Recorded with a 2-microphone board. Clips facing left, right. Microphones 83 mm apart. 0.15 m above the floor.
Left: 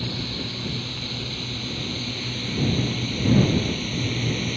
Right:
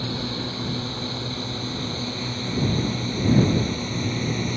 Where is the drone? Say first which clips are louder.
Right 2 dB; 30° right (ahead or behind); by 4.6 s 20° right (ahead or behind).